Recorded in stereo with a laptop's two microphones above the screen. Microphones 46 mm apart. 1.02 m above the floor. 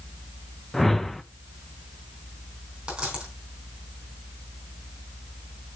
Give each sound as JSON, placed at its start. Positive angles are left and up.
{"t": 0.7, "sound": "a whoosh", "side_deg": 5, "distance_m": 0.6}
{"t": 2.9, "sound": "a dropped coin", "side_deg": -15, "distance_m": 3.5}